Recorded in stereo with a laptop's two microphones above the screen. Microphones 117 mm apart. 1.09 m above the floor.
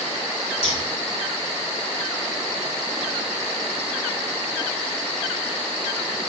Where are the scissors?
75° left (ahead or behind), 5 m.